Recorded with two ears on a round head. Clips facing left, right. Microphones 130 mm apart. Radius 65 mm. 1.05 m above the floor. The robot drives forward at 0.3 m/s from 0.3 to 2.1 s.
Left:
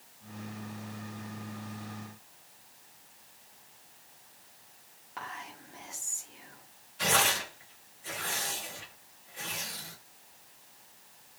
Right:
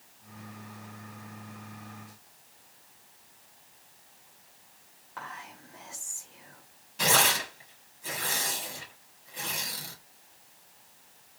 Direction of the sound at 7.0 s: 70° right (ahead or behind).